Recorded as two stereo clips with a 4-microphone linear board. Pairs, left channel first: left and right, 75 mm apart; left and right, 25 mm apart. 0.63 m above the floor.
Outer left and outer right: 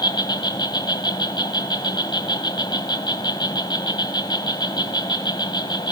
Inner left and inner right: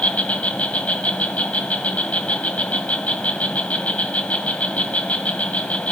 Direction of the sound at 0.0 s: 85° left.